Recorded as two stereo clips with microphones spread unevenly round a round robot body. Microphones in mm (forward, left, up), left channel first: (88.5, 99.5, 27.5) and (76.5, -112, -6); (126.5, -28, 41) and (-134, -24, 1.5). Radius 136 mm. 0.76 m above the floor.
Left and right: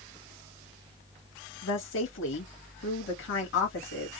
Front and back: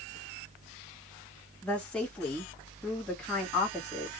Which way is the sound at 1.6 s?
90° left.